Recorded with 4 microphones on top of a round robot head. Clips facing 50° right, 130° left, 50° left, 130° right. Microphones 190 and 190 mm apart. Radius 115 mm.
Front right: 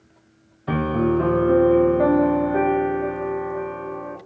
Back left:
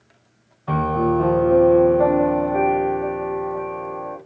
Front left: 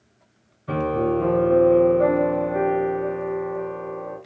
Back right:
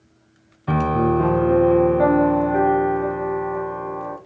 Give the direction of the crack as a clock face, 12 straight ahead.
I don't hear a crack.